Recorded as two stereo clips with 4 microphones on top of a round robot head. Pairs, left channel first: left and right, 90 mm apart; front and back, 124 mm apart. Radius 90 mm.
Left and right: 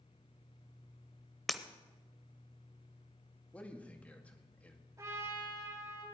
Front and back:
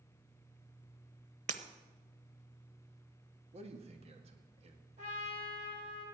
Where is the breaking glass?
Straight behind, 0.9 m.